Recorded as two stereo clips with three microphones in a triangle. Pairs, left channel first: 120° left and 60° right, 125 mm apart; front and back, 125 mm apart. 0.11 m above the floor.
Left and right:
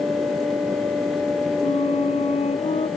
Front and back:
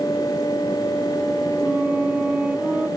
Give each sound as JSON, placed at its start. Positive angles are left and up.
{"t": 1.6, "sound": "a flute", "azimuth_deg": 100}